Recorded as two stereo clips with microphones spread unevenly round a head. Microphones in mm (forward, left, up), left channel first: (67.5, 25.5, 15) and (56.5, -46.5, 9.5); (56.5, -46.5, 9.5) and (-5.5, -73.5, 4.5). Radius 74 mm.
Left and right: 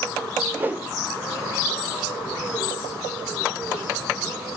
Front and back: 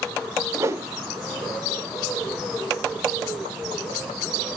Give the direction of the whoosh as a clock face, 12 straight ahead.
5 o'clock.